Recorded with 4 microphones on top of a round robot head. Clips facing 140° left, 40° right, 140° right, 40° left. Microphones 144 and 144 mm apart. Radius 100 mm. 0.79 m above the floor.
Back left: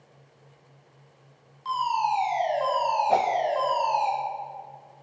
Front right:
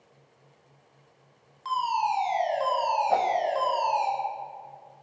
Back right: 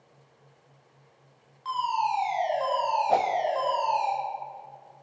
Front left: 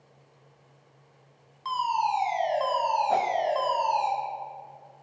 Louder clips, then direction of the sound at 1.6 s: Back left 1 dB, front left 1 dB; 10° right.